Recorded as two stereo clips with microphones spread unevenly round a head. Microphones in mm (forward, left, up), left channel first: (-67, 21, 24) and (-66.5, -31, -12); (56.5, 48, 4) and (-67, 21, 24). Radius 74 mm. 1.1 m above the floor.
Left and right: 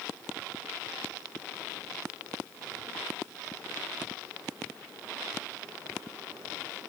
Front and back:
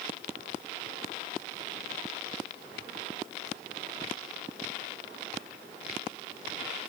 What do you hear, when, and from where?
Only background noise.